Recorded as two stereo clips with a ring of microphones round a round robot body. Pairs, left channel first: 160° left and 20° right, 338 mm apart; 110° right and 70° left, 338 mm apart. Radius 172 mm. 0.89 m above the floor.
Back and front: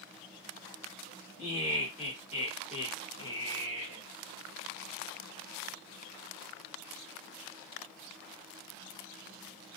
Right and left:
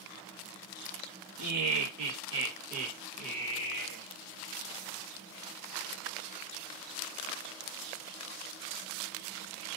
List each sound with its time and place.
1.4 s laughter: 85° left, 1.4 m; by 4.0 s 115° right, 0.9 m